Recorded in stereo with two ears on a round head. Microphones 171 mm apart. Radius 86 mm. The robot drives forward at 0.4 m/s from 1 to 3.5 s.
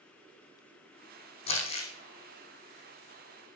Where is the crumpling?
30° left (ahead or behind), 5 m.